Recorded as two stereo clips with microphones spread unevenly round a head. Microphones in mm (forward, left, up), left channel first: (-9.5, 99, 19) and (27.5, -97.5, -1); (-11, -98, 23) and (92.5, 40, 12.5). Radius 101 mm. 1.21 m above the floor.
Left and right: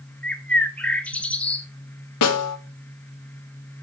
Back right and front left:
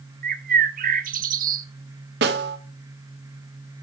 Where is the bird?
20° left, 0.8 m.